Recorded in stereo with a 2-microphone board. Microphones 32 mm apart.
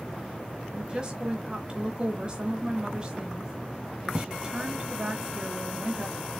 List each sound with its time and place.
0.7 s a woman speaking: 25° right (ahead or behind), 1.1 m